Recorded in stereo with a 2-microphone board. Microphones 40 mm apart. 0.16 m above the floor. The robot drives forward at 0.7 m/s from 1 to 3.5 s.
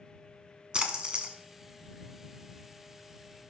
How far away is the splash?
About 1.2 m.